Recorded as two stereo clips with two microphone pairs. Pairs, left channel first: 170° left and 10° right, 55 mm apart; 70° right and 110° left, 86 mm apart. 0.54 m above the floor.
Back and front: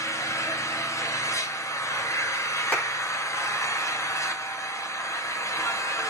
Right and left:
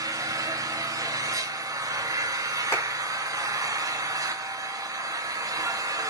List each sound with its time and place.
0.0 s an engine running: 160° left, 1.8 m
2.7 s a clap: 125° right, 4.5 m